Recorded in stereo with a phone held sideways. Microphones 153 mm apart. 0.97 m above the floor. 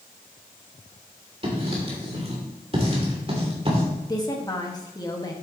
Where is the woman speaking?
25° left (ahead or behind), 1.6 m.